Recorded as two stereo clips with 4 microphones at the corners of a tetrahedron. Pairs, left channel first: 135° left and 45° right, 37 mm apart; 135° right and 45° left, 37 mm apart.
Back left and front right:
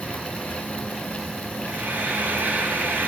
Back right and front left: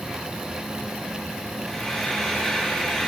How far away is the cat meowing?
I don't hear a cat meowing.